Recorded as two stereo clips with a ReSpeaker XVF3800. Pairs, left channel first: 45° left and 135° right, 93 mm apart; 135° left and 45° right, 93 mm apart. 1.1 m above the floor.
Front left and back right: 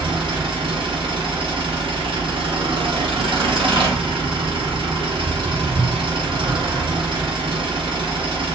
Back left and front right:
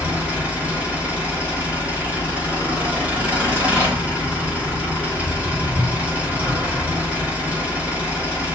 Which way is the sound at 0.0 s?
120° right.